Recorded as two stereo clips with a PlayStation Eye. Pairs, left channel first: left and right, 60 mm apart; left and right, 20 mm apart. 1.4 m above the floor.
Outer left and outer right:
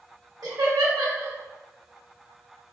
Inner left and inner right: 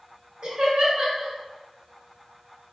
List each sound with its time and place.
0.4 s laughter: 85° right, 1.9 m